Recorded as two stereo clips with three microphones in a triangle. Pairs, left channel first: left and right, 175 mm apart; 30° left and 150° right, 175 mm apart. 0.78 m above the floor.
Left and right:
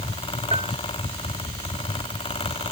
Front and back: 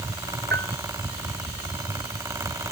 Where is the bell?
145° right.